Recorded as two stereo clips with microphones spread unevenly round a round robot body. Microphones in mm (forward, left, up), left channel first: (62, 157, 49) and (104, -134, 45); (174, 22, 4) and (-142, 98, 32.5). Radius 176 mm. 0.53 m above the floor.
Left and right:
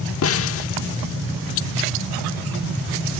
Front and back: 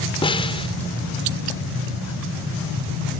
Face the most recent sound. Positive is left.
turn(degrees=60)